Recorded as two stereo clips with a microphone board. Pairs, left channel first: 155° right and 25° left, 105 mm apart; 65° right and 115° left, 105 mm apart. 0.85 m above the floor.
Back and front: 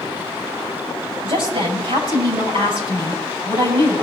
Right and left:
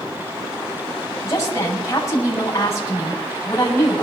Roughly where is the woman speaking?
Ahead.